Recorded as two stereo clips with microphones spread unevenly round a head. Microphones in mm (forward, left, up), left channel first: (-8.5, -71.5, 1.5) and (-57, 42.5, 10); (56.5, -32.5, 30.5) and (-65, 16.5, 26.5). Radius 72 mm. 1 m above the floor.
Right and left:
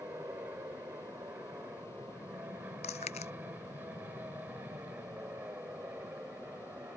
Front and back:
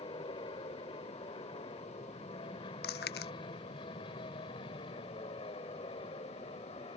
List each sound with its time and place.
0.0 s an aircraft: 35° left
2.8 s chewing: 15° right